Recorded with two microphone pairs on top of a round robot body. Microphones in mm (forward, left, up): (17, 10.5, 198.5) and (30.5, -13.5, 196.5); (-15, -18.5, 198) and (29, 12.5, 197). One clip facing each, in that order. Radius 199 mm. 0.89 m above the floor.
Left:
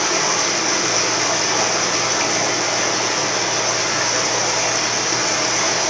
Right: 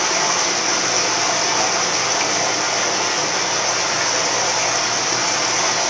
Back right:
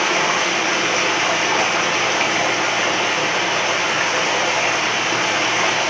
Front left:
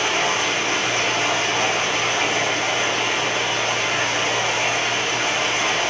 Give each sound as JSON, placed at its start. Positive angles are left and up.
{"t": 0.0, "sound": "running water", "azimuth_deg": -145, "distance_m": 1.0}